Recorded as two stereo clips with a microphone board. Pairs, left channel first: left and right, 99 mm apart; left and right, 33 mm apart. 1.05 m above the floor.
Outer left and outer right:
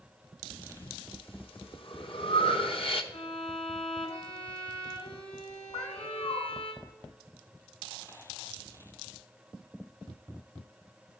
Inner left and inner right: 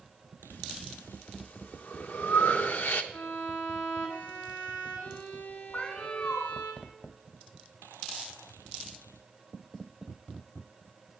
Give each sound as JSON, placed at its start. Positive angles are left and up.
{"t": 0.5, "sound": "breathing", "side_deg": 65, "distance_m": 1.0}
{"t": 3.1, "sound": "a violin", "side_deg": 80, "distance_m": 3.5}
{"t": 5.7, "sound": "a cat meowing", "side_deg": 70, "distance_m": 2.0}